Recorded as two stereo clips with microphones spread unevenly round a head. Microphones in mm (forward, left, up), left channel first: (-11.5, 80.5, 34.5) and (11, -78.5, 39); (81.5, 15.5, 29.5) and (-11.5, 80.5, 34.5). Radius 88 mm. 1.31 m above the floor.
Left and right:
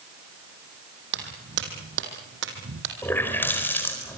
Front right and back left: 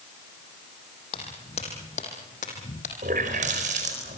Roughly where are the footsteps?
Right.